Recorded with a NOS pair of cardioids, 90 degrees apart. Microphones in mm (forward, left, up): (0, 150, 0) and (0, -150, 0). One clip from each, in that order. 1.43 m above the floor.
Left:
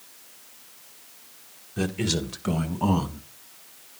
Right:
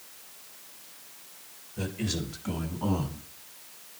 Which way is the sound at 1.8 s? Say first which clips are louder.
Left 6 dB; 70° left.